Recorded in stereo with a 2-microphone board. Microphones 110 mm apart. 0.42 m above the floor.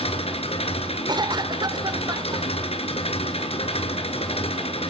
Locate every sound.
0.0 s an engine running: 65° left (ahead or behind), 2.5 m
1.1 s a cough: 40° right (ahead or behind), 1.0 m